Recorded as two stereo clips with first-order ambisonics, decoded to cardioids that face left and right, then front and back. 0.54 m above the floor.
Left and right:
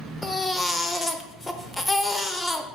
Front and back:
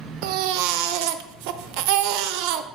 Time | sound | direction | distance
0.2 | a baby crying | 175° left | 0.5 m